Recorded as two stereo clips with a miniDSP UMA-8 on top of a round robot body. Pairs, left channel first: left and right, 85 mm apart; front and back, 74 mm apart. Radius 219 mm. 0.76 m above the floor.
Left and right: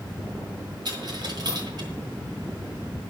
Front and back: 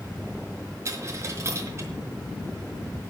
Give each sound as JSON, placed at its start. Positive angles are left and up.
{"t": 0.8, "sound": "a dropped coin", "azimuth_deg": -130, "distance_m": 0.9}